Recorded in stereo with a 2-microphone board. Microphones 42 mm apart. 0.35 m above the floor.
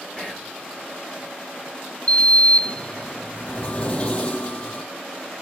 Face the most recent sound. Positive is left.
turn(degrees=30)  # may be behind; listen again after turning